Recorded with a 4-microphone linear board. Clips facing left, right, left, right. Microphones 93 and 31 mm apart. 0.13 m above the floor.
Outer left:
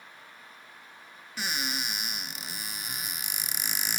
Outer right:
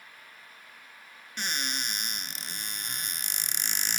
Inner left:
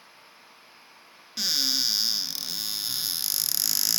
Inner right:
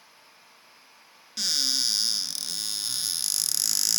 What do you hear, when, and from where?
1.4 s a cupboard door: 5° left (ahead or behind), 0.6 m